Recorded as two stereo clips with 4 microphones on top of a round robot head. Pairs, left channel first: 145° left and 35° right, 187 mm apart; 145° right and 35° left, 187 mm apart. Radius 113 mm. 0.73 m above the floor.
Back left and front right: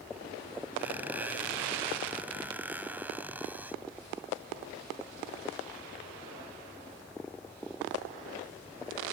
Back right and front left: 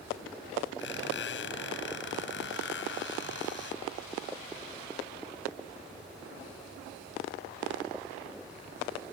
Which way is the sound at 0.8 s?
115° right.